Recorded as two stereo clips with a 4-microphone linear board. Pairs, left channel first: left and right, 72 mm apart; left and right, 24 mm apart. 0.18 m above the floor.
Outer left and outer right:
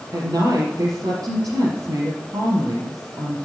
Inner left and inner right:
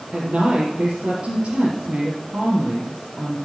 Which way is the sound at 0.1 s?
50° right (ahead or behind).